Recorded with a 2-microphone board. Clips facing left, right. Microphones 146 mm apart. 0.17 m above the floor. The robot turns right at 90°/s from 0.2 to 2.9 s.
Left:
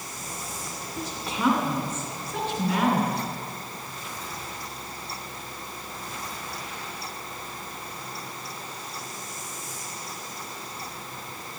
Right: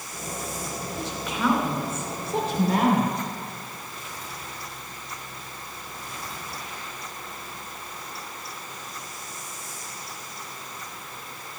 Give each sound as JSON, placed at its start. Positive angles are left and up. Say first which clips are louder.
{"t": 1.0, "sound": "a woman speaking", "louder": "even", "azimuth_deg": 105, "distance_m": 2.5}